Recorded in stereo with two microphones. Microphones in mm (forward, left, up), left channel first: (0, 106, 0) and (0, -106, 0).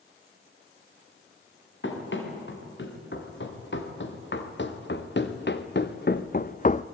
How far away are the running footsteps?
About 5 m.